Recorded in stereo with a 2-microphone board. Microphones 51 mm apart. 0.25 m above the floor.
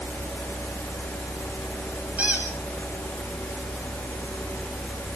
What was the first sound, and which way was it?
A squeak, 30° right (ahead or behind).